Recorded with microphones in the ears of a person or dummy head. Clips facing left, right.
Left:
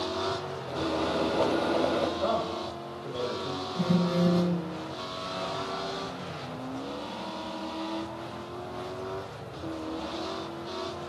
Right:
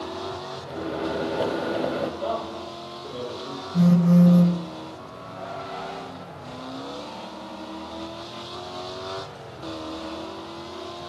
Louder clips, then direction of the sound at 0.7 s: Right 1 dB; 5° right (ahead or behind).